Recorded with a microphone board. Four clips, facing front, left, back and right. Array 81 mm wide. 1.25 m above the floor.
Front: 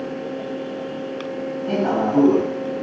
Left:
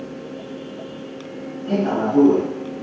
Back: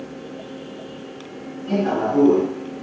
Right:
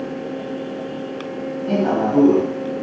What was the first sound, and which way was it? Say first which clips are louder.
A man speaking: right 1 dB, even; 35° right.